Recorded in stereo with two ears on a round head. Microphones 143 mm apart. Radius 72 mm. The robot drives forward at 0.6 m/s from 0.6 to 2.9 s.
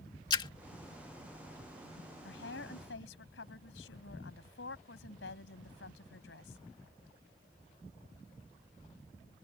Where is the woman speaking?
80° left; by 6.6 s 85° left.